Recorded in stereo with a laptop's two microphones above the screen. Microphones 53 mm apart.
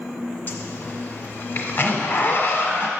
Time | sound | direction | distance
0.5 | a zipper | 40° left (ahead or behind) | 1.0 m